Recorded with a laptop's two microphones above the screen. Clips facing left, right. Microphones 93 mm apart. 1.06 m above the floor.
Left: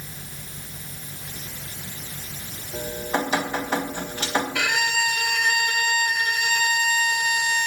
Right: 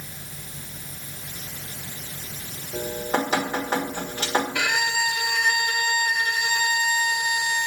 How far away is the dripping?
About 1.7 m.